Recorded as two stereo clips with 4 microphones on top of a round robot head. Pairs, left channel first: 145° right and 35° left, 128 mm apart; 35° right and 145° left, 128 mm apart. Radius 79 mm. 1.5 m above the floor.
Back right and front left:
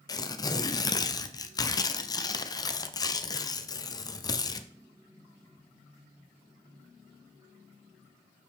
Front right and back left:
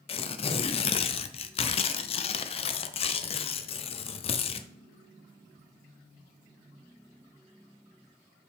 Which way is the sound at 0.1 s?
85° right.